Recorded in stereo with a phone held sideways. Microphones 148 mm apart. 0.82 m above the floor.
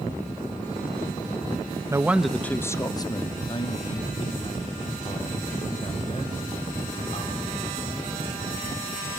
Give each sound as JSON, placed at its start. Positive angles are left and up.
{"t": 1.9, "sound": "a man speaking", "side_deg": -20, "distance_m": 0.5}